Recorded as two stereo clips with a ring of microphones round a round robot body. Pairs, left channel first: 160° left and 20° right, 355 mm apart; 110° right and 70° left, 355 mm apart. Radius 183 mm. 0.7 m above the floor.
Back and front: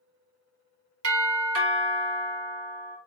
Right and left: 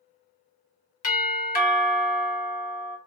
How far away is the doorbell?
About 1.4 m.